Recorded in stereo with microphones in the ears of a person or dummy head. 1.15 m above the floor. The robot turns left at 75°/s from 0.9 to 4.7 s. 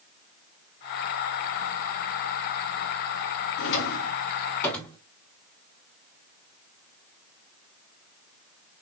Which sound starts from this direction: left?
A drawer, at 3.6 s.